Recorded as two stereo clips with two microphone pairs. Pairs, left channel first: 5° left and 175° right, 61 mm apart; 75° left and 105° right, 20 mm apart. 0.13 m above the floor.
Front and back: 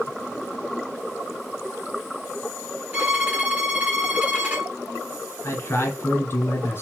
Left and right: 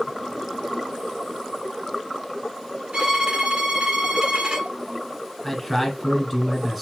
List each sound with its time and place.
2.9 s a violin: 120° right, 1.2 m
5.4 s a man speaking: 10° right, 1.4 m